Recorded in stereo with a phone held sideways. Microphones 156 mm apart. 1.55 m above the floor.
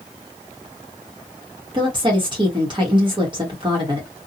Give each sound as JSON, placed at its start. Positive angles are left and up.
{"t": 1.7, "sound": "a woman speaking", "side_deg": -30, "distance_m": 1.2}